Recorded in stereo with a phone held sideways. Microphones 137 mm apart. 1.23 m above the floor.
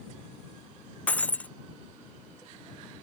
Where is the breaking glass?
10° left (ahead or behind).